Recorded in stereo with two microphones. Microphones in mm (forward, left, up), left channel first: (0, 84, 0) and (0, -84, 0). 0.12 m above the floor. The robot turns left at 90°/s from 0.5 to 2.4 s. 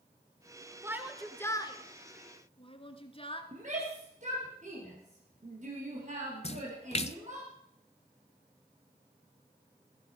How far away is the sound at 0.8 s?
About 1.5 m.